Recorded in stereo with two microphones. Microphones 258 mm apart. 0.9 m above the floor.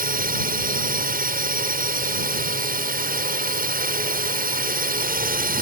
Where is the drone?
35° right (ahead or behind).